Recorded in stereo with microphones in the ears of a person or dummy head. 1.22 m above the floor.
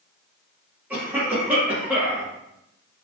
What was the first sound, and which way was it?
A cough, 5° right (ahead or behind).